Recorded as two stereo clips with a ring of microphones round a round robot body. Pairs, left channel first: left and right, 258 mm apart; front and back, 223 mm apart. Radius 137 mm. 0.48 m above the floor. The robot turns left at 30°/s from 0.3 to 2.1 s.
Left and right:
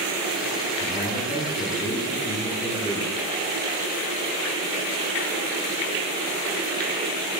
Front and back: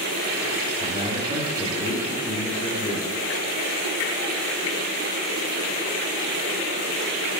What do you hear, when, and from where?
0.8 s a man speaking: 150° left, 1.5 m; by 3.1 s 110° left, 1.5 m